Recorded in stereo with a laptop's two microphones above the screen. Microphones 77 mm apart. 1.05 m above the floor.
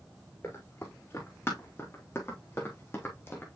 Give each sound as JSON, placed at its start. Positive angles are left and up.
{"t": 0.4, "sound": "running footsteps", "side_deg": 35, "distance_m": 5.0}